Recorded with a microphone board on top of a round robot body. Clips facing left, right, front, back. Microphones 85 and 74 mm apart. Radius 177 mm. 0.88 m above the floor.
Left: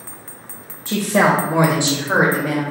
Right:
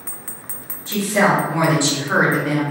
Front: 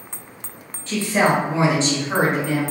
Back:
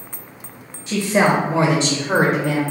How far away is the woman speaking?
About 0.7 m.